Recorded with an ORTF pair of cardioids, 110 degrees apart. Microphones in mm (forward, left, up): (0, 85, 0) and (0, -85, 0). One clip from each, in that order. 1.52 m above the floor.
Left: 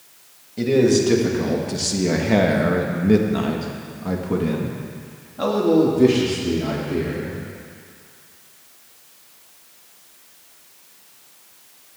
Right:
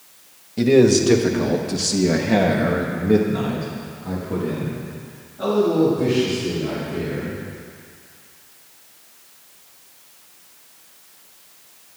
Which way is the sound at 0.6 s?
20° right.